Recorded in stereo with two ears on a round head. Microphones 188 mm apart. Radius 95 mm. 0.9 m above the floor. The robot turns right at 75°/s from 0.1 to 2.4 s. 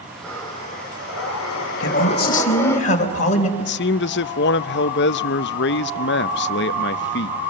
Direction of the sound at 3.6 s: 55° left (ahead or behind).